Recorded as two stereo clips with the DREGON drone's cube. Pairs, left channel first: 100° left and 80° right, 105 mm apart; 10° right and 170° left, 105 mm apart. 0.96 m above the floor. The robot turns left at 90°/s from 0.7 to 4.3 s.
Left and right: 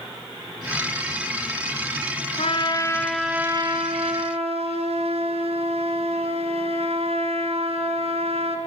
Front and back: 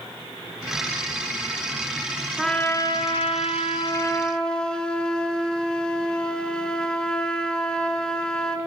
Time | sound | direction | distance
2.4 | a trumpet | 80° left | 2.5 m